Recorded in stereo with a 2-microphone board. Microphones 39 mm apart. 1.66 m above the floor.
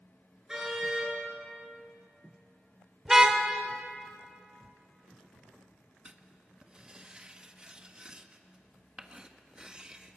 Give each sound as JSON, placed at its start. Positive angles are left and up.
{"t": 0.5, "sound": "a car horn", "side_deg": -15, "distance_m": 9.0}
{"t": 3.0, "sound": "a car horn", "side_deg": -10, "distance_m": 2.5}
{"t": 6.0, "sound": "writing", "side_deg": -20, "distance_m": 1.4}